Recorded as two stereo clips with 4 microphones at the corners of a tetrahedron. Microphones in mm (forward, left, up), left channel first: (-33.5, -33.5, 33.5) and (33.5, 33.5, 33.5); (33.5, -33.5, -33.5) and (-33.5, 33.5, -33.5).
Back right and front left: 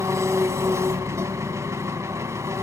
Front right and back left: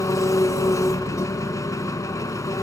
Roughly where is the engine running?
Ahead.